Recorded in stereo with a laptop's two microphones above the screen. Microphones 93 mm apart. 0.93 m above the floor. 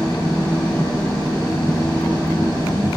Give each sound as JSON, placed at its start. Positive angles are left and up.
{"t": 0.0, "sound": "an engine running", "side_deg": 50, "distance_m": 3.0}